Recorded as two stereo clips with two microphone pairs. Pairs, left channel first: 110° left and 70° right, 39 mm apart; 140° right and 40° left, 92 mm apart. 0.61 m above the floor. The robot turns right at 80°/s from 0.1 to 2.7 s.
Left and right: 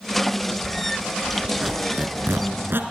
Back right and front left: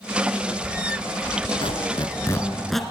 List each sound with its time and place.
1.6 s a squeak: 140° right, 1.8 m; by 2.8 s 50° right, 1.8 m